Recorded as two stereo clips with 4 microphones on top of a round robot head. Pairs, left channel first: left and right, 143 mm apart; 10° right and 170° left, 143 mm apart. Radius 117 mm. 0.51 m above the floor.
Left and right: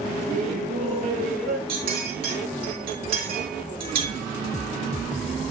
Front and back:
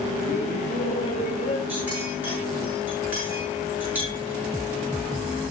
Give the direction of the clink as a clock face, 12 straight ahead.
4 o'clock.